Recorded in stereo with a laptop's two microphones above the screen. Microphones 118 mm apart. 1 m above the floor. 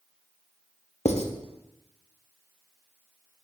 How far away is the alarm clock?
I don't hear an alarm clock.